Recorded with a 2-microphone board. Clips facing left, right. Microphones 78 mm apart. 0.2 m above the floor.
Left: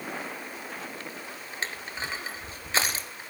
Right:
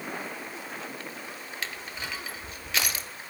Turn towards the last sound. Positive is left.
turn(degrees=30)  # may be behind; listen again after turning